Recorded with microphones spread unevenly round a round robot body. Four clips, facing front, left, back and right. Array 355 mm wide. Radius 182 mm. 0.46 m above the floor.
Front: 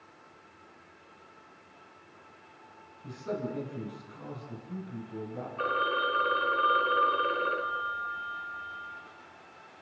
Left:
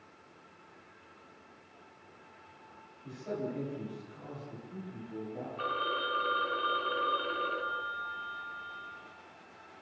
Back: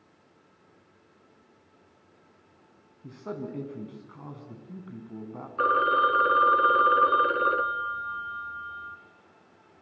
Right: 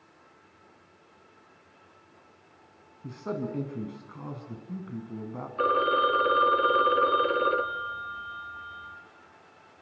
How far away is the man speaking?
About 5.5 m.